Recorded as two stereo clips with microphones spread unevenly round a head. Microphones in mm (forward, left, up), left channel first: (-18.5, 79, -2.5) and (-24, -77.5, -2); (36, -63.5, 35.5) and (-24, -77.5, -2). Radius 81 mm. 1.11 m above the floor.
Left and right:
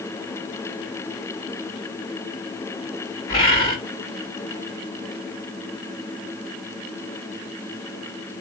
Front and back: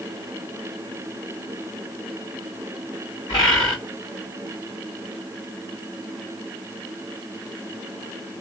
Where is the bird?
25° left, 2 m.